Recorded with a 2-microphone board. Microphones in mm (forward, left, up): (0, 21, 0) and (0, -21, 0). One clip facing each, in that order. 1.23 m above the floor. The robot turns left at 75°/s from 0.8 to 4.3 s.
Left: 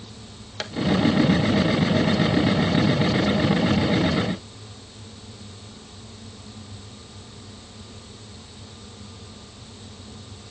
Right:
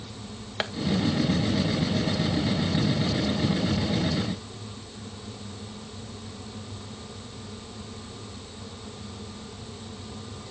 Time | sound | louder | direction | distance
0.6 | tapping | right 3 dB | 20° right (ahead or behind) | 1.0 m